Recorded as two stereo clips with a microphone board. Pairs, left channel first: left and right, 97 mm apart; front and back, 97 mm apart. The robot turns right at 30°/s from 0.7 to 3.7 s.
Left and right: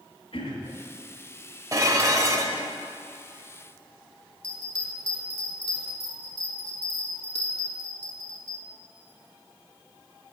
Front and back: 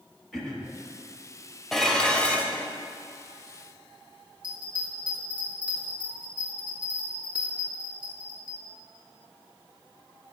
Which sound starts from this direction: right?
Dishes clattering, at 1.7 s.